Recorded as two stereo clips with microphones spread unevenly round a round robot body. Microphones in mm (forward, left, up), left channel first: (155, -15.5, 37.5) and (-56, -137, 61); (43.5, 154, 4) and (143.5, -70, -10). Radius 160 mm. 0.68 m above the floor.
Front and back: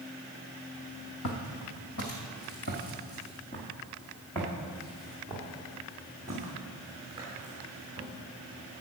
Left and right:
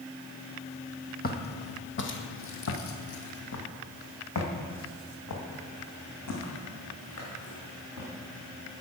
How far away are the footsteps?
About 1.7 m.